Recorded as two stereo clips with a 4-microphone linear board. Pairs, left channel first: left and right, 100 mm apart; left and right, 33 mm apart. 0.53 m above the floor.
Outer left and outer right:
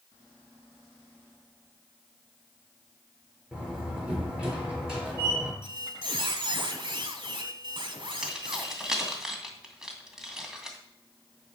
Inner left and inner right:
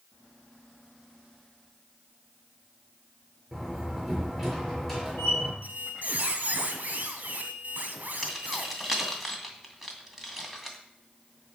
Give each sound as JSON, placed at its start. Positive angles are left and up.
{"t": 3.5, "sound": "a door slam", "side_deg": -10, "distance_m": 5.5}
{"t": 5.6, "sound": "a squeak", "side_deg": -50, "distance_m": 1.6}
{"t": 8.2, "sound": "keys jangling", "side_deg": -5, "distance_m": 2.5}